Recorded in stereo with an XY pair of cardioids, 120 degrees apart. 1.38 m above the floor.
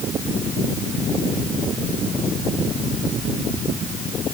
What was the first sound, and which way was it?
Only background noise.